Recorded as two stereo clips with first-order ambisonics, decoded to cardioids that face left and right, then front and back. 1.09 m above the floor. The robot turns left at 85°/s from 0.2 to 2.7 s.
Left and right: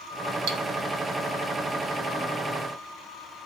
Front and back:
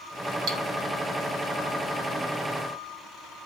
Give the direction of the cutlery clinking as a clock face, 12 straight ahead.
4 o'clock.